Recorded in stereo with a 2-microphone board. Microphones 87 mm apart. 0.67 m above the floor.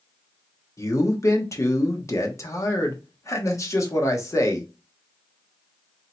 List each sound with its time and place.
0.8 s a man speaking: 35° left (ahead or behind), 1.1 m